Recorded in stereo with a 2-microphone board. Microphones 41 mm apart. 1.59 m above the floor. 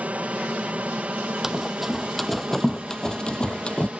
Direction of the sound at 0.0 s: 35° right (ahead or behind).